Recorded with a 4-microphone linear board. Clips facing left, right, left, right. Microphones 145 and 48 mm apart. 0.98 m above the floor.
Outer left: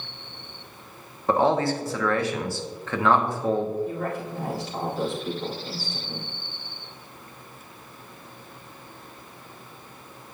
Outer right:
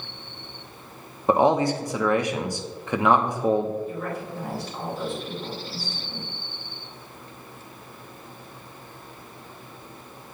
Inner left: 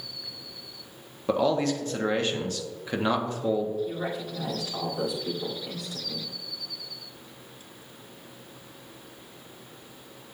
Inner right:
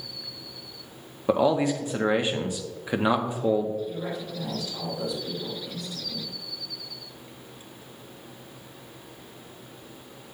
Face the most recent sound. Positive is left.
turn(degrees=80)